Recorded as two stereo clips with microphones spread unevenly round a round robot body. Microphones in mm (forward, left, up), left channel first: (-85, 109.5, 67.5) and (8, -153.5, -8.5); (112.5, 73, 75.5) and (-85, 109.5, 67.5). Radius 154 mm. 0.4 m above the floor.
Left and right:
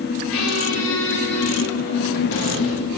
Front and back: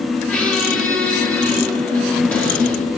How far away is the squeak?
About 4.5 m.